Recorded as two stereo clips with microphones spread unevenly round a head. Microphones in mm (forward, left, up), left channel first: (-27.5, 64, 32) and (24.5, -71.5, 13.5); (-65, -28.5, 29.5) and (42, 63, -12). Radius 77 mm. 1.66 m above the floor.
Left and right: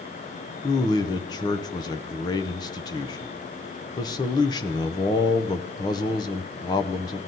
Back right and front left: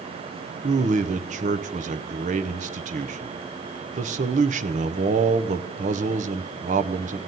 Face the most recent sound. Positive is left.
turn(degrees=75)